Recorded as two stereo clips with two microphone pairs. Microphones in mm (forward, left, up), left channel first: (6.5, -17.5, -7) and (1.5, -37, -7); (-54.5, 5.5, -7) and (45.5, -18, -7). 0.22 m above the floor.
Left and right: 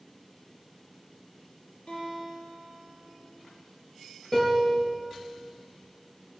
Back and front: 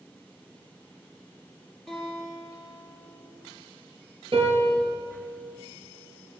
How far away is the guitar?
About 5.5 m.